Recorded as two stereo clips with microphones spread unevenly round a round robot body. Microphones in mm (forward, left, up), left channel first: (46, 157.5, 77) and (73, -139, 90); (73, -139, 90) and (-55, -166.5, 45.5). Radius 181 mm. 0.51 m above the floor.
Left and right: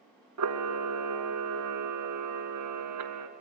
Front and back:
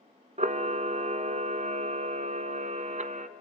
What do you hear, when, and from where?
0.4 s a camera shutter: 125° right, 1.0 m